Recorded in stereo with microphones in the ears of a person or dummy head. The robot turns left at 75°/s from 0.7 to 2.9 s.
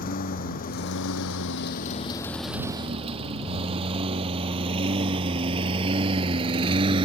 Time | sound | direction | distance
0.0 | a lawn mower | 50° left (ahead or behind) | ?